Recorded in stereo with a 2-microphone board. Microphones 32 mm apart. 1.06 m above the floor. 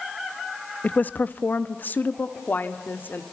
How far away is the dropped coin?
No dropped coin in this recording.